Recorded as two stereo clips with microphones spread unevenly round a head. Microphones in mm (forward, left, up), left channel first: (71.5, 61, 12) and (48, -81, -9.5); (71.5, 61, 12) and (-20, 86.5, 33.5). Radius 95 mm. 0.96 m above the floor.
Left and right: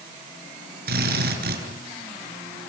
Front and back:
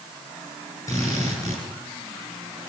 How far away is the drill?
About 7.5 m.